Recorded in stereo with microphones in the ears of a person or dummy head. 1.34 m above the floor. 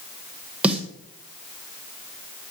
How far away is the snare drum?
About 0.8 m.